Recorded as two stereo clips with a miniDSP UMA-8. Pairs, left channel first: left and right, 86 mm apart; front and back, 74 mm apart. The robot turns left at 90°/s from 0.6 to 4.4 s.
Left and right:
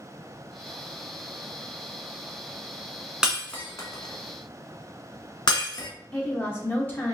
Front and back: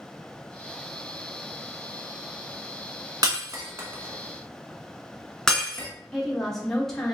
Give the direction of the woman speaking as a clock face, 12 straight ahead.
10 o'clock.